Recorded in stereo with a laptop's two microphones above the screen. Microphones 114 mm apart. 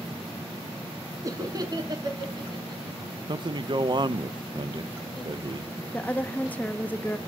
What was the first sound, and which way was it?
Laughter, 30° right (ahead or behind).